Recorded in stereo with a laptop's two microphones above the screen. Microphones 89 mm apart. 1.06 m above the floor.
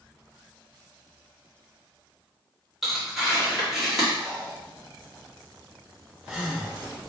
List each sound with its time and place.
2.8 s tearing paper: centre (ahead or behind), 1.1 m
4.2 s breathing: 10° right (ahead or behind), 0.9 m